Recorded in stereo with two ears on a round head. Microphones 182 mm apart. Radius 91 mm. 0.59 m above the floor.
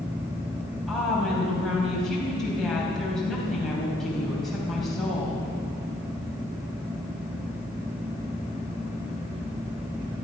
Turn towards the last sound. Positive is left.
turn(degrees=0)  # may be behind; listen again after turning